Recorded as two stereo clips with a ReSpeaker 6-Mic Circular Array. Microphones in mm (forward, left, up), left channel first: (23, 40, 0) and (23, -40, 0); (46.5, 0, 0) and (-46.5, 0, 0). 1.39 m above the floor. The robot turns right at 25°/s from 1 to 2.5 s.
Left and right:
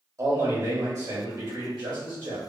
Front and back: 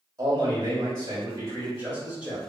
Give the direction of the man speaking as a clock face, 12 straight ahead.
4 o'clock.